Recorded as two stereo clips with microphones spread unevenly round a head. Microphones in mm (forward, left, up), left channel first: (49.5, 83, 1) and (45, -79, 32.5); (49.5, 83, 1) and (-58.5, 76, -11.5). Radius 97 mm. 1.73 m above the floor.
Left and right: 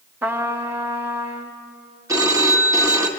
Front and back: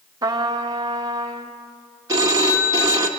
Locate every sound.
0.2 s a trumpet: 140° right, 1.1 m
2.1 s a phone ringing: 130° right, 1.2 m